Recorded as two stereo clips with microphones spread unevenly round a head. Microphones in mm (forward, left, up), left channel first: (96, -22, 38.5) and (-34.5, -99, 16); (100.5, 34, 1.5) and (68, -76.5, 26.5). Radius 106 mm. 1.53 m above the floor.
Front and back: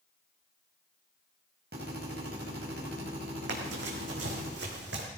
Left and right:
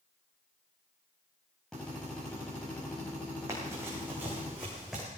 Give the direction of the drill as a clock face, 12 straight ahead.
7 o'clock.